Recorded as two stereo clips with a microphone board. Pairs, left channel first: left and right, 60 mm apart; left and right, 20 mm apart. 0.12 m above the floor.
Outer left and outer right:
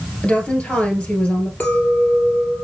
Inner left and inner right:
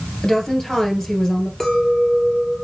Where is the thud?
I don't hear a thud.